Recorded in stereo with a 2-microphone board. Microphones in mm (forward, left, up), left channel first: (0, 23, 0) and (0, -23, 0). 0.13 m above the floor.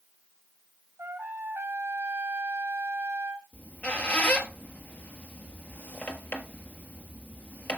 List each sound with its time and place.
1.0 s a trumpet: 80° right, 1.2 m
3.5 s a squeak: 45° left (ahead or behind), 1.3 m